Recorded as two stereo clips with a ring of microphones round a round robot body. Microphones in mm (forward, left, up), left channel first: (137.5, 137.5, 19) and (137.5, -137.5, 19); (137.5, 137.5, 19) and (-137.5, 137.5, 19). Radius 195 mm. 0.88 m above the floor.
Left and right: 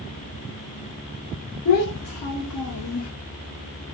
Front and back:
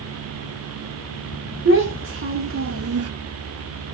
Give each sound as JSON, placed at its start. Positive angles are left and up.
{"t": 1.6, "sound": "a child speaking", "azimuth_deg": 135, "distance_m": 1.9}